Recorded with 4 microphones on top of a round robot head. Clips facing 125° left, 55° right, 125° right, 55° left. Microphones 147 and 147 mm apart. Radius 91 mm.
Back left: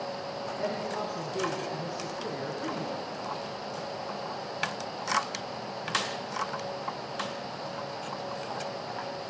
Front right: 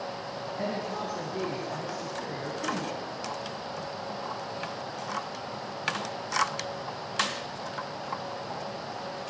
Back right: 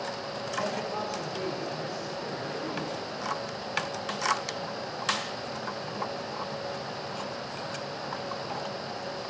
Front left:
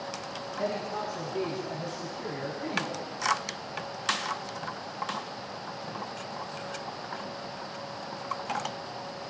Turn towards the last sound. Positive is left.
turn(degrees=-10)